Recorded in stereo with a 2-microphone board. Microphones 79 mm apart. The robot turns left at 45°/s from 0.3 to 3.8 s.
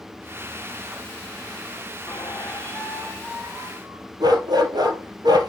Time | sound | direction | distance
2.1 | a squeak | 55° left | 2 m
4.2 | a dog barking | 60° right (ahead or behind) | 2 m